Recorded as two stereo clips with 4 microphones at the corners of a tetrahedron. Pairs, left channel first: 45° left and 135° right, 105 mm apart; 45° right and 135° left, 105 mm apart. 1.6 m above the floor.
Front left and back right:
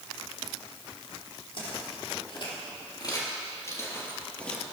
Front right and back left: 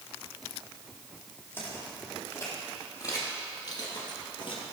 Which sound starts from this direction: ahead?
Footsteps, at 1.5 s.